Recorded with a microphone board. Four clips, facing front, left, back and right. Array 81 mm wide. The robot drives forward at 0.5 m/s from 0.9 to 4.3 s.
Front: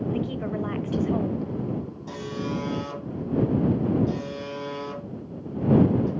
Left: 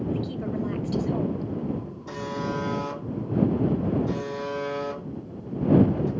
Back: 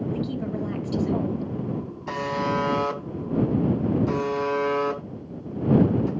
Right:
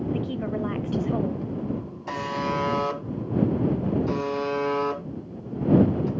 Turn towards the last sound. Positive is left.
turn(degrees=-150)